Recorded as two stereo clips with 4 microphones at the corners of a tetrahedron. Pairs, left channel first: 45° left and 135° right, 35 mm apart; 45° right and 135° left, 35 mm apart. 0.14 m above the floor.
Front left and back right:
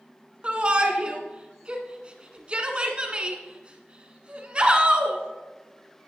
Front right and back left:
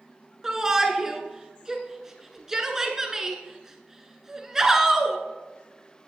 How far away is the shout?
About 1.4 m.